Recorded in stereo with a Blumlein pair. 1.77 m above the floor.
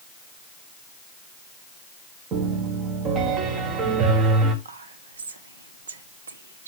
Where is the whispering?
70° right, 1.2 m.